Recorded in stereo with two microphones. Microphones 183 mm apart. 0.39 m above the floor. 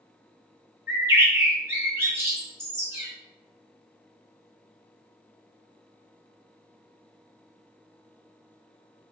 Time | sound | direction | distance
0.9 | a bird | 15° right (ahead or behind) | 1.4 m